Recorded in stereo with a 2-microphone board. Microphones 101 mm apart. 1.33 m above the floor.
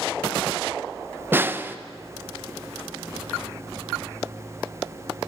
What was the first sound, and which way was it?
A snare drum, 20° right (ahead or behind).